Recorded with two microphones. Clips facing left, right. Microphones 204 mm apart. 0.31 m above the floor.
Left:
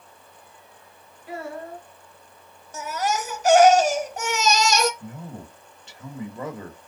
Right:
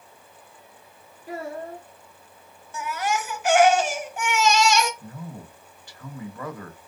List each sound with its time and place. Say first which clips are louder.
1.3 s a child speaking: right 1 dB; 10° right (ahead or behind), 2.0 m
2.7 s a baby crying: left 1 dB; 40° left (ahead or behind), 0.8 m
5.0 s a man speaking: left 1 dB; 20° left (ahead or behind), 0.9 m